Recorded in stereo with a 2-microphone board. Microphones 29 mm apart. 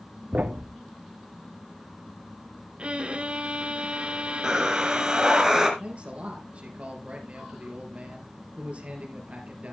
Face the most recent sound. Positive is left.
turn(degrees=-40)  # may be behind; listen again after turning